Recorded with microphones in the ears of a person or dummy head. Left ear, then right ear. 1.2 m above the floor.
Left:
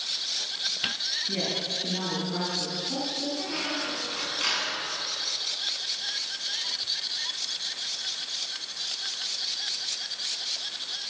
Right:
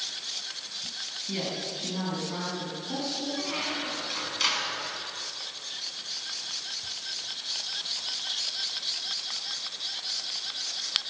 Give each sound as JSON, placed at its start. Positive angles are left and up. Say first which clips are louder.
{"t": 1.3, "sound": "a woman speaking", "louder": "left 4 dB", "side_deg": -15, "distance_m": 9.5}
{"t": 3.4, "sound": "a squeak", "louder": "left 1 dB", "side_deg": -20, "distance_m": 7.0}